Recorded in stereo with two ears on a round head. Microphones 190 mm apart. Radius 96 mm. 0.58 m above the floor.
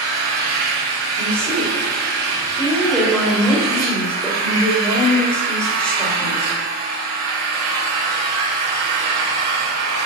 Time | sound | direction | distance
0.0 | an engine running | 75° right (ahead or behind) | 2.0 m
1.2 | a woman speaking | 5° left (ahead or behind) | 2.5 m